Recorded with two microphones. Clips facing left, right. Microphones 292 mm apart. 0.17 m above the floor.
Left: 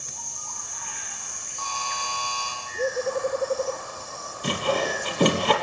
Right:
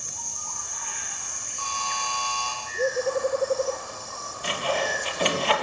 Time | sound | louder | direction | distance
1.6 | a buzzer | even | 30° right (ahead or behind) | 9 m
4.4 | sawing | left 3 dB | 45° left (ahead or behind) | 2.5 m